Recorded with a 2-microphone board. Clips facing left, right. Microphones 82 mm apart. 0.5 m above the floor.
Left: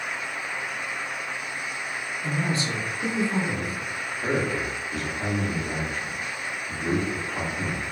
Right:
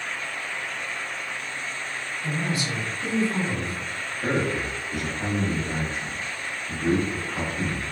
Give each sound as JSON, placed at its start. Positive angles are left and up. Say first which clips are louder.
{"t": 2.2, "sound": "a man speaking", "louder": "left 1 dB", "side_deg": 30, "distance_m": 1.1}
{"t": 4.2, "sound": "a man speaking", "louder": "right 1 dB", "side_deg": -5, "distance_m": 0.7}